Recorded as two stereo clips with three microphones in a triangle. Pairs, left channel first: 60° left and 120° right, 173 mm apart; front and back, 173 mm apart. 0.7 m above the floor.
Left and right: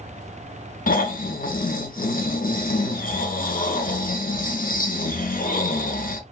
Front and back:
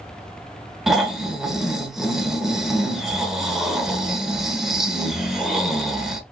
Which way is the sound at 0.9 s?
90° left.